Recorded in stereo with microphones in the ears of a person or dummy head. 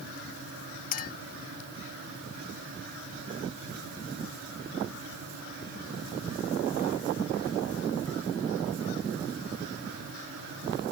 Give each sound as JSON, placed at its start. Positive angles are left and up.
{"t": 0.9, "sound": "a clink", "side_deg": 55}